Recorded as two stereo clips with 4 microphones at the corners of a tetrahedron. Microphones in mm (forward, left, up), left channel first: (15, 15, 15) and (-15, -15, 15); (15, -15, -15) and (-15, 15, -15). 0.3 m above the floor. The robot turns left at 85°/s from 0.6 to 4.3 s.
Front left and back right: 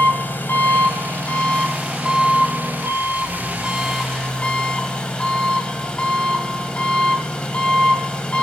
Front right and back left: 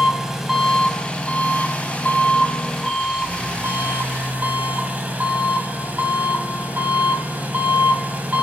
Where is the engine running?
55° left, 1.9 m; by 8.4 s 100° left, 1.9 m.